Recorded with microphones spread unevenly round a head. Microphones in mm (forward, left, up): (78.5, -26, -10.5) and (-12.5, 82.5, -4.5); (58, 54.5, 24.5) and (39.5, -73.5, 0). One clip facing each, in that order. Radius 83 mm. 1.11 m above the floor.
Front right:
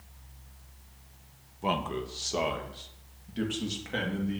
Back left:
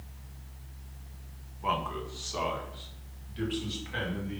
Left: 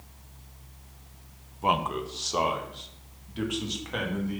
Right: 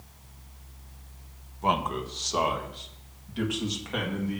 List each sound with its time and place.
1.6 s a man speaking: 10° right, 0.8 m